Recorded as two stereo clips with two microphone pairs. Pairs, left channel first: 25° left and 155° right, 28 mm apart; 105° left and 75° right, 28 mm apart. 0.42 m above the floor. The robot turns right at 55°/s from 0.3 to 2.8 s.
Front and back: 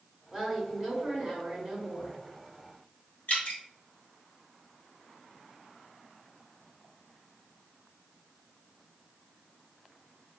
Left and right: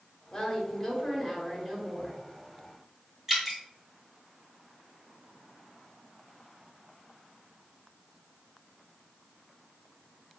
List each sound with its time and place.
0.3 s a woman speaking: 150° left, 1.9 m; by 2.2 s 110° right, 1.9 m
3.3 s dripping: 5° left, 1.8 m